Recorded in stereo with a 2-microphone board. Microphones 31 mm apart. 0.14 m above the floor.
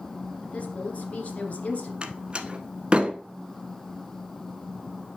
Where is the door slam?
30° right (ahead or behind), 0.9 m.